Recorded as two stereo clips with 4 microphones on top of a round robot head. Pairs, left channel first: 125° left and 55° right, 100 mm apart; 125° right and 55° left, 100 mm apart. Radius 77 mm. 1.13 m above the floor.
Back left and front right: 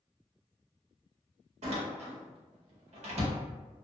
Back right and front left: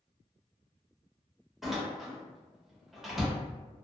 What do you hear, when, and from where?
1.6 s a door slam: 35° right, 0.8 m